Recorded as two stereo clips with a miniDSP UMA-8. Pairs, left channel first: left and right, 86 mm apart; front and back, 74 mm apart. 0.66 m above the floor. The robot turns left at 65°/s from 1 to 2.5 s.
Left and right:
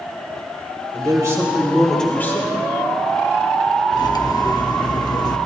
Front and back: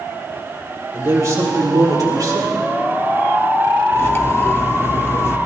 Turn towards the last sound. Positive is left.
turn(degrees=55)